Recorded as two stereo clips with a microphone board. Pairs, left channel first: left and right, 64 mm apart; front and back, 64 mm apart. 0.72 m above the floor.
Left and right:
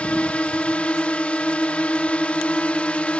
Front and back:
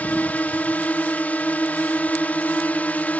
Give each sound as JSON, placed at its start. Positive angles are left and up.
{"t": 0.0, "sound": "a drone", "azimuth_deg": 35}